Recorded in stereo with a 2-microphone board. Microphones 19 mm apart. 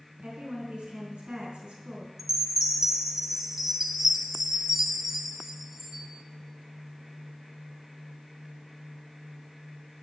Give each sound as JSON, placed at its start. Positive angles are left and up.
{"t": 0.2, "sound": "a woman speaking", "side_deg": -60, "distance_m": 3.5}
{"t": 2.2, "sound": "a chime", "side_deg": -20, "distance_m": 1.3}